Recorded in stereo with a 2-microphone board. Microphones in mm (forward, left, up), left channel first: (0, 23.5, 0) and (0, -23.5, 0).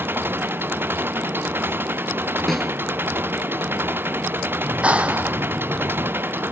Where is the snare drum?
5° left (ahead or behind).